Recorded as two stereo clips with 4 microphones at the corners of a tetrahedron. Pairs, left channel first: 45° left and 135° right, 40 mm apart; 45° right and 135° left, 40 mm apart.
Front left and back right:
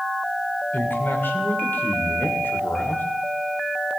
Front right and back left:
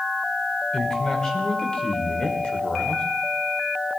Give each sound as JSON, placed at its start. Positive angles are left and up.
{"t": 0.7, "sound": "a man speaking", "azimuth_deg": 25, "distance_m": 2.5}